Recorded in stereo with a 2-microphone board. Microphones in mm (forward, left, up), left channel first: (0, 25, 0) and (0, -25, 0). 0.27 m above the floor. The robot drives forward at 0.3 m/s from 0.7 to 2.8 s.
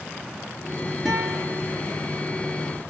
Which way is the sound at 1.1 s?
Centre (ahead or behind).